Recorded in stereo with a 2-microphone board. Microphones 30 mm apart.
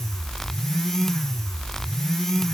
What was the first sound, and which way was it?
Only background noise.